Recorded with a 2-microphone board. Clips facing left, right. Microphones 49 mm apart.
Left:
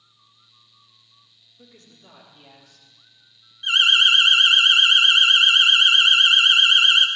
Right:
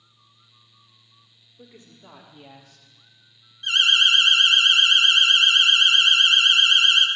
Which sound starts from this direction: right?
A woman speaking, at 1.6 s.